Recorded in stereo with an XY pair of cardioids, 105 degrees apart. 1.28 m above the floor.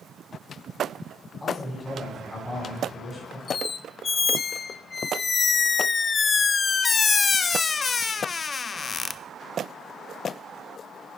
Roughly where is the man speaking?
Ahead left.